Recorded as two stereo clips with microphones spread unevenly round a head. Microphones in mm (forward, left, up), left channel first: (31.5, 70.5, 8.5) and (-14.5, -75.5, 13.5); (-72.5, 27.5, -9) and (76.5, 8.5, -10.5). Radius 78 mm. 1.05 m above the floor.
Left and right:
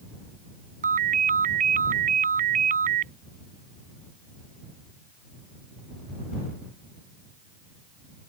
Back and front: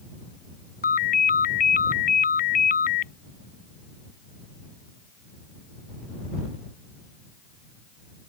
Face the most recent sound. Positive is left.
turn(degrees=-150)